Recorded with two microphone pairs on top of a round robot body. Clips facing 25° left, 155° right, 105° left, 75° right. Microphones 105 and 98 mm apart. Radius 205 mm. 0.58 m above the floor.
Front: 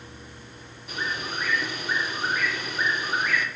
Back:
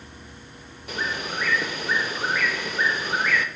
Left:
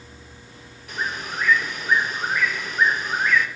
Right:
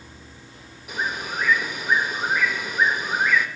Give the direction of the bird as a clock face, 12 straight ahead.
5 o'clock.